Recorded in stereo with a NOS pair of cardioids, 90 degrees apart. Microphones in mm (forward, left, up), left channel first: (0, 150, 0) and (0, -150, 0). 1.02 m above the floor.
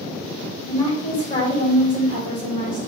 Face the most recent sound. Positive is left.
turn(degrees=50)